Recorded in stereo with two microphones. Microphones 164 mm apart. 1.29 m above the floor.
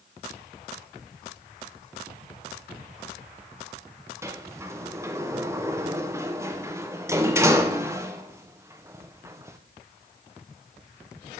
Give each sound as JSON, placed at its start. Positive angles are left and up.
{"t": 4.2, "sound": "a sliding door", "side_deg": -15, "distance_m": 0.6}